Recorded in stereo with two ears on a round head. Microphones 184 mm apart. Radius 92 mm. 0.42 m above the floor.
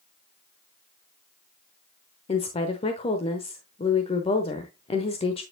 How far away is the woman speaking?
About 1.0 m.